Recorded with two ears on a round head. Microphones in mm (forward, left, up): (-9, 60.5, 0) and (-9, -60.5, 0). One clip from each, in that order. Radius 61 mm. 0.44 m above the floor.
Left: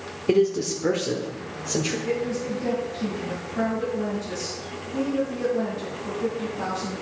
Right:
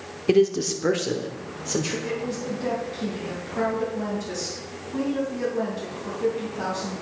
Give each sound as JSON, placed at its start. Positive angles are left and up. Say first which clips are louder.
{"t": 0.3, "sound": "a man speaking", "louder": "right 1 dB", "side_deg": -25, "distance_m": 1.1}
{"t": 2.0, "sound": "a woman speaking", "louder": "left 2 dB", "side_deg": -60, "distance_m": 3.0}